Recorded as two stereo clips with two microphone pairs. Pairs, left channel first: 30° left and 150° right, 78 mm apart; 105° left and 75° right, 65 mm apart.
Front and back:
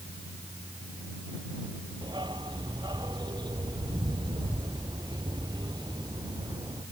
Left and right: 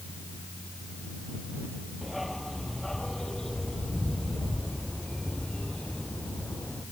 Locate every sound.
2.0 s a dog barking: 165° right; by 6.8 s straight behind